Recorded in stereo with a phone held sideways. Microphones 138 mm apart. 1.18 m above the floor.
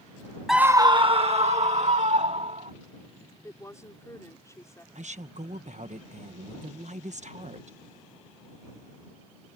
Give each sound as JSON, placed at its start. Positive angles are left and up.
{"t": 0.5, "sound": "a scream", "side_deg": 0}
{"t": 3.4, "sound": "a woman speaking", "side_deg": 25}
{"t": 5.0, "sound": "a woman speaking", "side_deg": -65}